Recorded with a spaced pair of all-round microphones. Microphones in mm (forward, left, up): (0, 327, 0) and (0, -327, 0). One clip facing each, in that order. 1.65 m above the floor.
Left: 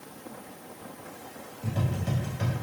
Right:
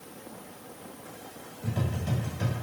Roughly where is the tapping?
Centre.